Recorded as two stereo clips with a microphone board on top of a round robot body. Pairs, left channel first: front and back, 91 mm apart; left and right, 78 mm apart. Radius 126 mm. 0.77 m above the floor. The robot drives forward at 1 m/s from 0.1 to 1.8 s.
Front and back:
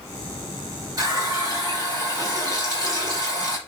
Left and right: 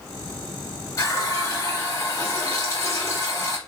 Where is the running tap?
130° left, 3 m; by 3.6 s 140° left, 4 m.